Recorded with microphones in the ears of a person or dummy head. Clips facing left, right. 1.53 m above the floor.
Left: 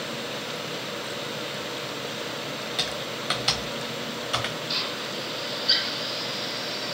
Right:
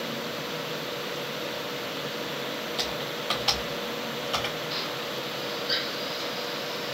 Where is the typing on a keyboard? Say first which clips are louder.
Even; 20° left (ahead or behind), 0.8 m.